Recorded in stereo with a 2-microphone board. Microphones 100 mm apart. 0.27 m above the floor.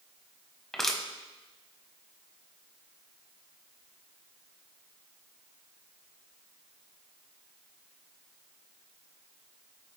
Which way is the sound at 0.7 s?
5° left (ahead or behind).